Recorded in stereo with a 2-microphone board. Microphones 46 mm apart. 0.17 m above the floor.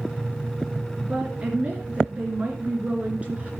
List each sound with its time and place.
1.0 s a woman speaking: 30° right (ahead or behind), 2.5 m